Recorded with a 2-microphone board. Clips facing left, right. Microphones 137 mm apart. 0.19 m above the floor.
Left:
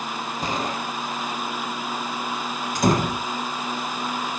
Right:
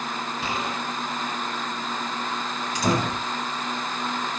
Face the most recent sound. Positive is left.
turn(degrees=50)  # may be behind; listen again after turning